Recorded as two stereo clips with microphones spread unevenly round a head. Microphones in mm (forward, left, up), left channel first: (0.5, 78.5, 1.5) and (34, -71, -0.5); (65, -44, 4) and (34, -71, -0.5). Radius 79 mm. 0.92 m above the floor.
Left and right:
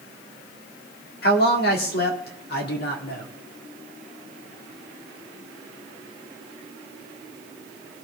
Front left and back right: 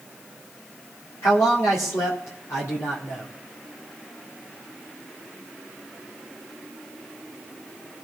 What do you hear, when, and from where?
1.2 s a man speaking: 80° left, 1.9 m